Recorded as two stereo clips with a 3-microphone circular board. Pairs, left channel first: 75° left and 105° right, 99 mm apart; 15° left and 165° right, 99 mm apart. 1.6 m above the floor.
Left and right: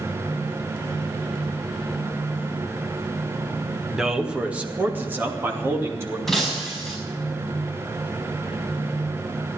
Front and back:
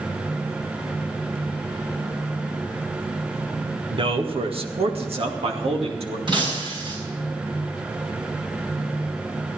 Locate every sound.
3.9 s a man speaking: 170° left, 1.3 m; by 6.2 s 170° right, 3 m
6.3 s breaking glass: 160° left, 5.5 m